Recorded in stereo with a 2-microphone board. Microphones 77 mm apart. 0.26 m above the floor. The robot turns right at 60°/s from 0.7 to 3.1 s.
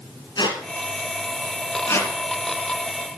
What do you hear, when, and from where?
0.4 s a squeak: 65° left (ahead or behind), 1.9 m; by 2.1 s 25° left (ahead or behind), 1.9 m